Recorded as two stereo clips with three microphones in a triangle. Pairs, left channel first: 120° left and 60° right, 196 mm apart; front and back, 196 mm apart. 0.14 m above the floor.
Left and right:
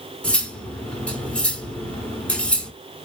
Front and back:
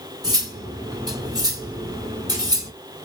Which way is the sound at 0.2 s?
170° right.